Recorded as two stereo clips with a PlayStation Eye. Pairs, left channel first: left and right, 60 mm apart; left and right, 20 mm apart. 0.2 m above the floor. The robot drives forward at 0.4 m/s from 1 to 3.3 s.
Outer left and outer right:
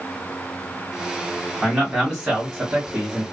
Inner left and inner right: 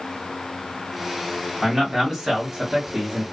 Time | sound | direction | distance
1.6 | a man speaking | 5° right (ahead or behind) | 1.2 m